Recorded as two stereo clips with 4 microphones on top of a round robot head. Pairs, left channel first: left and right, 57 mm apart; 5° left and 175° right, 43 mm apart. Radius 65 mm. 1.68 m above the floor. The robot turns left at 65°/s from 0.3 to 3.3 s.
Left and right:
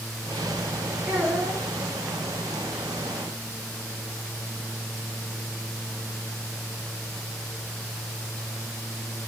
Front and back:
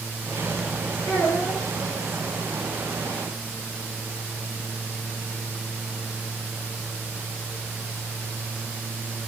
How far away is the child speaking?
About 1.8 m.